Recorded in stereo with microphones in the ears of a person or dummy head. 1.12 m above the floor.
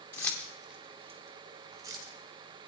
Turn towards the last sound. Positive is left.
turn(degrees=-25)  # may be behind; listen again after turning